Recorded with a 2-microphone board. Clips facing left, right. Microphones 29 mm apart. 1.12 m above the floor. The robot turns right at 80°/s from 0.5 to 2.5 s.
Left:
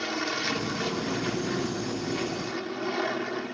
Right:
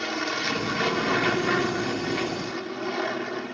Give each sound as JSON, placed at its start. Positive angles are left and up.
{"t": 0.0, "sound": "an aircraft", "azimuth_deg": -165}